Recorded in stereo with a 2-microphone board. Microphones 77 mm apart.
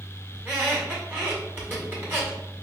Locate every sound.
0.3 s a squeak: 30° right (ahead or behind), 1.7 m